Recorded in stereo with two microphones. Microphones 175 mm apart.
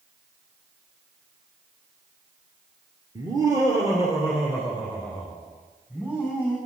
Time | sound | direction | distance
3.1 | laughter | 20° right (ahead or behind) | 1.9 m